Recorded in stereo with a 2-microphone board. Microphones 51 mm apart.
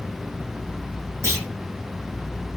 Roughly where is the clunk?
Right.